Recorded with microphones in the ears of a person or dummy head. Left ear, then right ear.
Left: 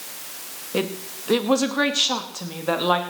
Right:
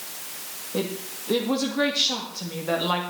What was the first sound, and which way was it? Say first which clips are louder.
A woman speaking: left 3 dB; 65° left (ahead or behind).